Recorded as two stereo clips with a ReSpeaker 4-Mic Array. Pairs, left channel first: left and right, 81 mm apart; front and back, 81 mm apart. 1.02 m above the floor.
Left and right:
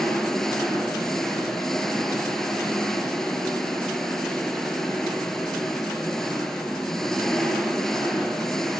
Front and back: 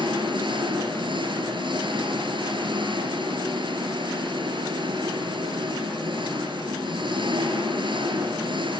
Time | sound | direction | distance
0.0 | an engine running | 175° left | 5.5 m